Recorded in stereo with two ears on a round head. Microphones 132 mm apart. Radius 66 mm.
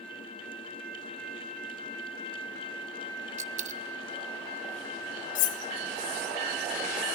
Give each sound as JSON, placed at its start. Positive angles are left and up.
{"t": 3.4, "sound": "a dropped coin", "side_deg": -50, "distance_m": 0.7}
{"t": 5.3, "sound": "cutlery clinking", "side_deg": 55, "distance_m": 0.7}